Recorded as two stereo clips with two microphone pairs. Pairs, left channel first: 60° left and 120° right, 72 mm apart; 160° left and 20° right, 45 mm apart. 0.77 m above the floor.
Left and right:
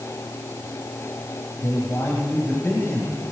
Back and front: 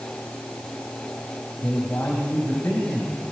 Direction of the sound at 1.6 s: 110° left.